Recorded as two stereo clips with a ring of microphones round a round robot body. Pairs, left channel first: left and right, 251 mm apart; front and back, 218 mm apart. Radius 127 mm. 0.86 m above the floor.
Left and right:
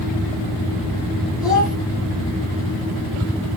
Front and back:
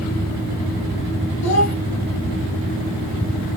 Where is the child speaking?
Straight ahead, 3 m.